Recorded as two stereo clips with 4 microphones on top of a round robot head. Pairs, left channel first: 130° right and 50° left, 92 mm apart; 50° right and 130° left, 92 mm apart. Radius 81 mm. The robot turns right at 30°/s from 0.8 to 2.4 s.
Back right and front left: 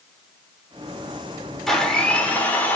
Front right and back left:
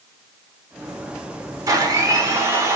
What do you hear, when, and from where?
1.7 s a blender: 145° left, 1.2 m; by 2.8 s 170° left, 1.2 m